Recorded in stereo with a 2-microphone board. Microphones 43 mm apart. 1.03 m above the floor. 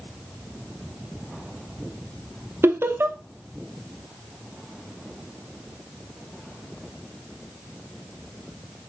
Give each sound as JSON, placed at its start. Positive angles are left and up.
{"t": 2.6, "sound": "laughter", "side_deg": -75, "distance_m": 0.6}